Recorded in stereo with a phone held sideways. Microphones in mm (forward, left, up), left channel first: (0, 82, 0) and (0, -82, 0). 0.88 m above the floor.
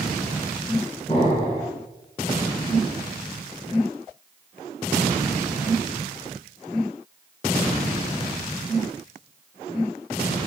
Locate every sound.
1.1 s an explosion: 35° left (ahead or behind), 1.4 m